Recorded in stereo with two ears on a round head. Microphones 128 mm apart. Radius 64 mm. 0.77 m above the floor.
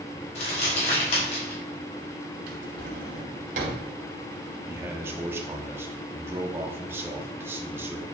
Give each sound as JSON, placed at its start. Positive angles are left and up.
{"t": 0.3, "sound": "crumpling", "side_deg": 45, "distance_m": 3.0}
{"t": 2.5, "sound": "a drawer", "side_deg": -60, "distance_m": 2.0}
{"t": 4.7, "sound": "a man speaking", "side_deg": -15, "distance_m": 1.1}